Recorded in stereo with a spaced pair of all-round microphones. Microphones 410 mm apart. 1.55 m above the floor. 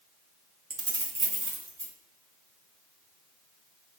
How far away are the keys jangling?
About 0.6 m.